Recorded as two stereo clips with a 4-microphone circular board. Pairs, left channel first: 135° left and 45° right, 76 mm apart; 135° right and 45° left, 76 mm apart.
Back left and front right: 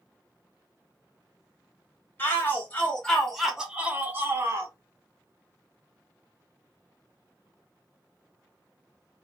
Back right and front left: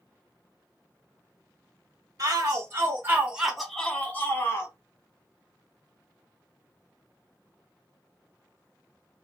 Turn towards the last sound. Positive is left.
turn(degrees=-90)